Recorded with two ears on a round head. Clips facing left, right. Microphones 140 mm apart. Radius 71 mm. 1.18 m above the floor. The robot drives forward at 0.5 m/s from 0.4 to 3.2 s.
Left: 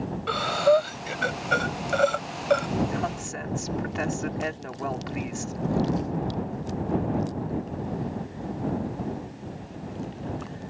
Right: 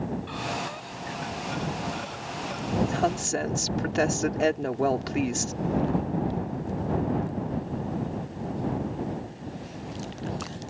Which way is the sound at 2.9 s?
40° right (ahead or behind).